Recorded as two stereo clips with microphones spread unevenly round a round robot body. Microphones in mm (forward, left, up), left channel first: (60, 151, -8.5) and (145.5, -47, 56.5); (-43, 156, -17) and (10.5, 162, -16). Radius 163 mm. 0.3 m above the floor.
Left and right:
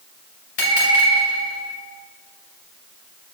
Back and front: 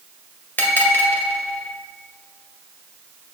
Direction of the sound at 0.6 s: 140° left.